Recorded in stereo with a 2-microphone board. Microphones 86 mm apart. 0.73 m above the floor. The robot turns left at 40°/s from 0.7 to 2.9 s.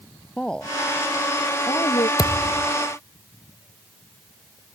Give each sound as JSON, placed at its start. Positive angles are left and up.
{"t": 0.4, "sound": "a woman speaking", "side_deg": 10}
{"t": 2.2, "sound": "a thud", "side_deg": 65}